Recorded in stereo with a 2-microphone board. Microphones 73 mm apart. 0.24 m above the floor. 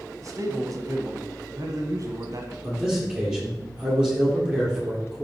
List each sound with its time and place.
0.2 s a man speaking: 50° right (ahead or behind), 1.5 m
2.6 s a man speaking: 10° right (ahead or behind), 4.5 m